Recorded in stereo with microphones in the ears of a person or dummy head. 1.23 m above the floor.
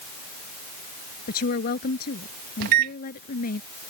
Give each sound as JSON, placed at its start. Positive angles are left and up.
{"t": 1.3, "sound": "a woman speaking", "side_deg": 50}
{"t": 2.6, "sound": "a microwave", "side_deg": -55}